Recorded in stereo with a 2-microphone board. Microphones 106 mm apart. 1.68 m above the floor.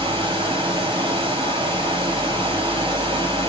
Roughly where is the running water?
Right.